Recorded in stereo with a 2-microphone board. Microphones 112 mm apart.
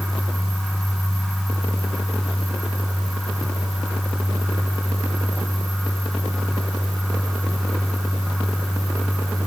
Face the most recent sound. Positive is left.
No sound to turn to.